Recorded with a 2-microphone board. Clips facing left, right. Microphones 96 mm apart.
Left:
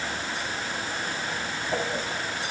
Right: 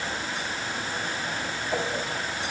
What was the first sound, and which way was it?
Only background noise.